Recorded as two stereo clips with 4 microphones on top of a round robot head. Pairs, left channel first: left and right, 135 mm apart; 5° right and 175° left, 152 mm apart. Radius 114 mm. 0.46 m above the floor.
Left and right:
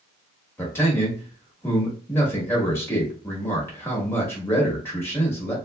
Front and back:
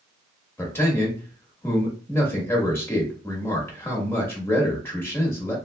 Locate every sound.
0.6 s a man speaking: 45° left, 1.2 m